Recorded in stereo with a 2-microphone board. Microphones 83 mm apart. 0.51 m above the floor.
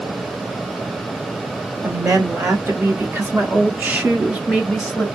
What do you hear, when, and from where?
1.8 s a woman speaking: 30° right (ahead or behind), 1.7 m; by 5.1 s 5° left (ahead or behind), 1.1 m